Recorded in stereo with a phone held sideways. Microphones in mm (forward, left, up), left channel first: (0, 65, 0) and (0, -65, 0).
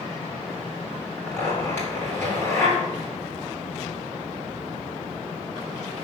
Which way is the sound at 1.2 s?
20° left (ahead or behind).